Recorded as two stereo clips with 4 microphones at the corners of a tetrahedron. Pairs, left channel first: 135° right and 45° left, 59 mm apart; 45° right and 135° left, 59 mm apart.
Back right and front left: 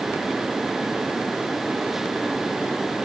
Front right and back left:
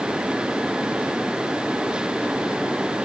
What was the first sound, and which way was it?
Only background noise.